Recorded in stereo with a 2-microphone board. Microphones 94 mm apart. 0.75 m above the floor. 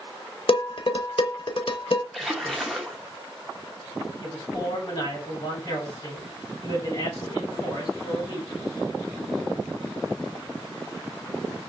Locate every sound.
0.5 s dishes clattering: 65° left (ahead or behind), 0.7 m
2.1 s a splash: centre (ahead or behind), 0.9 m
4.2 s a man speaking: 45° left (ahead or behind), 3 m